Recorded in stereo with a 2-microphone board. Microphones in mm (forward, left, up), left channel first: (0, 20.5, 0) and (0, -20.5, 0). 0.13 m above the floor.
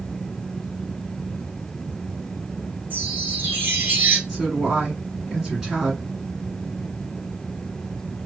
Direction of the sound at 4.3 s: 10° right (ahead or behind).